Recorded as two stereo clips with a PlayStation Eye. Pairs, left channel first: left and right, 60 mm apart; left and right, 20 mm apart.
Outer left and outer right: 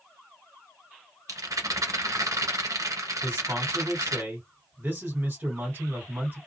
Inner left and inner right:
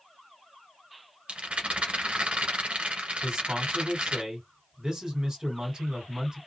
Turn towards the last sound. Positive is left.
turn(degrees=-35)  # may be behind; listen again after turning